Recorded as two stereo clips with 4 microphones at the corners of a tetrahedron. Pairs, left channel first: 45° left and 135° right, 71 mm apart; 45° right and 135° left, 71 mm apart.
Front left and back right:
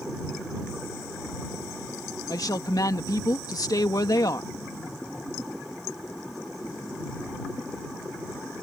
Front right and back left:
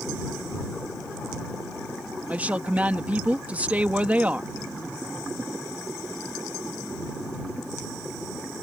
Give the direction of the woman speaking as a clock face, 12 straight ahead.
10 o'clock.